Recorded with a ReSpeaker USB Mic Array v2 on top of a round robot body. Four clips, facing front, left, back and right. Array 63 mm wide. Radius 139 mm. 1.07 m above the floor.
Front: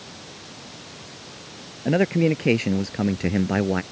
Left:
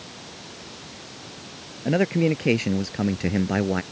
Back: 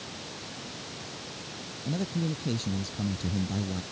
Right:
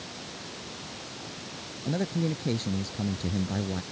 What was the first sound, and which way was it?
A man speaking, 35° left.